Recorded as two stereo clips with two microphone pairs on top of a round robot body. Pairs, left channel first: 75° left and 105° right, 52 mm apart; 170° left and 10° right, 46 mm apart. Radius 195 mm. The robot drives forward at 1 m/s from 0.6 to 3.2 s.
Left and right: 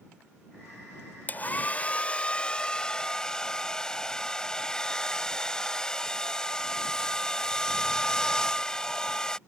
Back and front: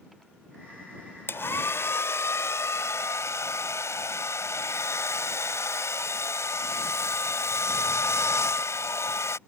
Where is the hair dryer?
130° left; by 9.4 s 150° left.